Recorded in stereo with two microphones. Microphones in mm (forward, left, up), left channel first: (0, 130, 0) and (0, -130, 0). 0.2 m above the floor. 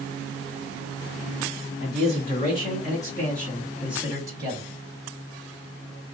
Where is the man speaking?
35° left (ahead or behind), 1.8 m; by 4.7 s 20° right (ahead or behind), 1.6 m.